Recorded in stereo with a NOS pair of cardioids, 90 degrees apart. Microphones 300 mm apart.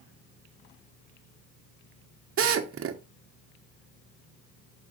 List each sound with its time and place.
2.4 s a drill: 50° right, 1.2 m